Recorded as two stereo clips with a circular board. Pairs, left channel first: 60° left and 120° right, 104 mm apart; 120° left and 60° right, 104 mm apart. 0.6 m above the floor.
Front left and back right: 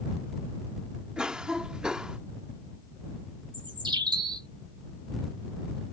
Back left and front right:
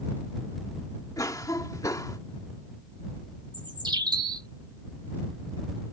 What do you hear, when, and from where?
1.2 s a cough: 160° left
3.5 s a bird: 90° right